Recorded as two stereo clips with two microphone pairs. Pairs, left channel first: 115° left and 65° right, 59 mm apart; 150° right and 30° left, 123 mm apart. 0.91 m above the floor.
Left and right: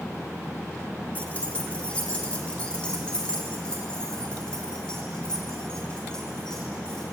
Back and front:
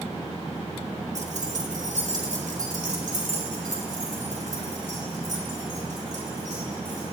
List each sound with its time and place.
1.1 s keys jangling: 45° left, 1.1 m; by 7.0 s 35° left, 4.5 m